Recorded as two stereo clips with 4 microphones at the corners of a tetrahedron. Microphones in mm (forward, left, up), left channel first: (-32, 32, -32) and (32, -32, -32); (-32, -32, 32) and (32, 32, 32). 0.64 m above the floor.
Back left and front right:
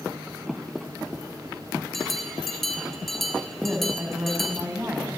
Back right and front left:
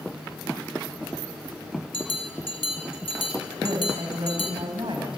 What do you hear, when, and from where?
1.9 s a bell: 140° right, 4.5 m
3.6 s a woman speaking: 20° left, 5 m